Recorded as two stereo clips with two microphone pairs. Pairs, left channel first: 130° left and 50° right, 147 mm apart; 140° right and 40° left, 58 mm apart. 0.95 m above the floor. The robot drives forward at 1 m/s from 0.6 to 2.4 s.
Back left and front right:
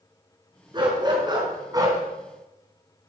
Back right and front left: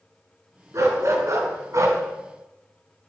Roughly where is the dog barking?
Ahead.